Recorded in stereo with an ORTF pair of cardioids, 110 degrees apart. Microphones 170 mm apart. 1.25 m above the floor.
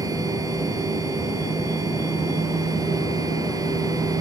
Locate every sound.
0.0 s a machine running: 20° right